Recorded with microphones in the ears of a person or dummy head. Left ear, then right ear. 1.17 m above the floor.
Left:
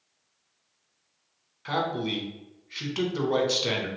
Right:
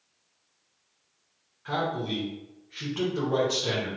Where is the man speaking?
75° left (ahead or behind), 1.1 m.